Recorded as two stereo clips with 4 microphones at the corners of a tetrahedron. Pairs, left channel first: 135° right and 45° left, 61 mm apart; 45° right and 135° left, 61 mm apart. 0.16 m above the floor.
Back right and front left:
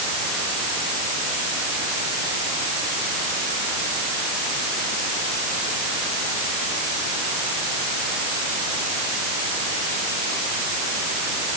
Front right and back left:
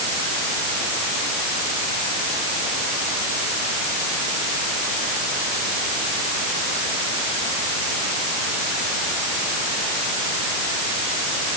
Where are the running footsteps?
I don't hear running footsteps.